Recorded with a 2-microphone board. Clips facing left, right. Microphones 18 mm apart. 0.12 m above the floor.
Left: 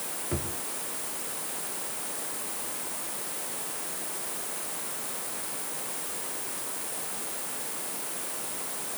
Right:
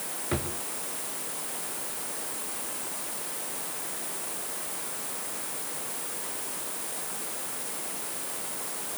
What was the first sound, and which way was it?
A drawer, 85° right.